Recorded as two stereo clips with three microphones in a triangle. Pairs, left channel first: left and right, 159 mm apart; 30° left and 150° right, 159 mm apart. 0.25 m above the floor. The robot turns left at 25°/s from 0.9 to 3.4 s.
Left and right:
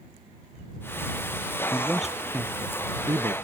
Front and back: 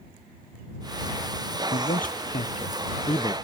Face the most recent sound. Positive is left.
turn(degrees=-35)